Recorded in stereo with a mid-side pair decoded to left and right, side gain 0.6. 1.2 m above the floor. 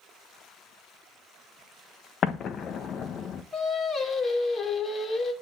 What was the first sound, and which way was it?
An explosion, 45° left.